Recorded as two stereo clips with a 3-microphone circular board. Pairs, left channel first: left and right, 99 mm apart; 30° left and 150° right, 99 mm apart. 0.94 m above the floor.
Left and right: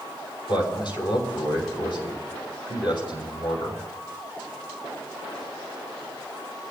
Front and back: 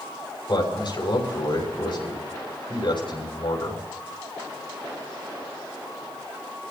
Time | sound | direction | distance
0.5 | a man speaking | 60° left | 6 m